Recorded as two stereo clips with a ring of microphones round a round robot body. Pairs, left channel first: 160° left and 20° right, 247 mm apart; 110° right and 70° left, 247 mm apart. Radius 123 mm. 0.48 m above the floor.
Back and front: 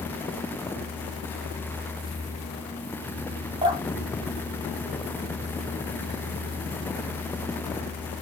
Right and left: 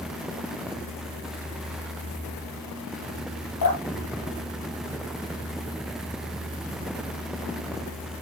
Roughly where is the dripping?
Right.